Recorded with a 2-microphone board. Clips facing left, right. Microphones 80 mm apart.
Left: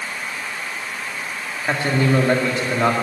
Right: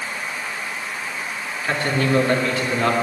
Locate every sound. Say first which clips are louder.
1.6 s a man speaking: left 2 dB; 20° left (ahead or behind), 2 m